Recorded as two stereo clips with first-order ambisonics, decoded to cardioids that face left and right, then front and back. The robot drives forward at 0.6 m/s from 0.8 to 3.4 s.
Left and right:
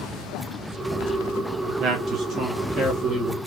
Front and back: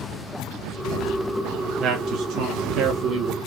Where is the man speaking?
125° right, 0.9 m; by 3.4 s 155° right, 1.6 m.